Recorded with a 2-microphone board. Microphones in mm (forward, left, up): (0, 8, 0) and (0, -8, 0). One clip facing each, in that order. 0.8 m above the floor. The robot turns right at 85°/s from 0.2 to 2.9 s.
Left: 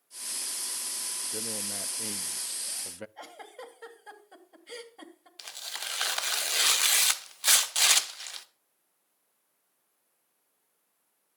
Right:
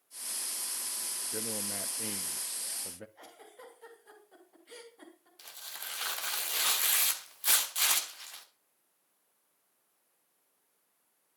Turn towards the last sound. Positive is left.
turn(degrees=45)  # may be behind; listen again after turning